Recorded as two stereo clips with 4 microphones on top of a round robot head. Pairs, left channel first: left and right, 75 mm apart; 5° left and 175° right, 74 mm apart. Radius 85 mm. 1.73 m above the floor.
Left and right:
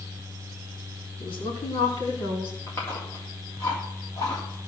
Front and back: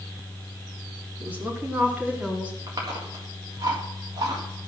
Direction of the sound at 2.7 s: 150° left.